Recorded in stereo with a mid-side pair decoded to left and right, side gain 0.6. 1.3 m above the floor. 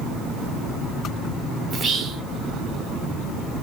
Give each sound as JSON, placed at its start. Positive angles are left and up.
{"t": 1.7, "sound": "whispering", "azimuth_deg": -35, "distance_m": 1.2}